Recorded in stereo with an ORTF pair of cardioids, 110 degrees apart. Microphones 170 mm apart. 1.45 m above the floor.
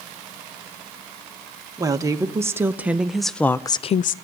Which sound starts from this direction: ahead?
A woman speaking, at 1.8 s.